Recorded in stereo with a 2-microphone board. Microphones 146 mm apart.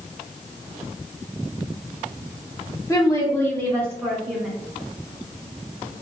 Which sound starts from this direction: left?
A woman speaking, at 2.9 s.